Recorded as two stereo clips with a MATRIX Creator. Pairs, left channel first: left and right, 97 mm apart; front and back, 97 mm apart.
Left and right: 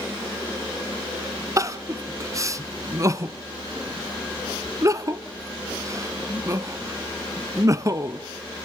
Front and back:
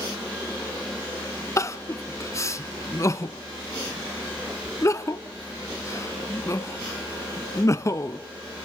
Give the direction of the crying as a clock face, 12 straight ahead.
2 o'clock.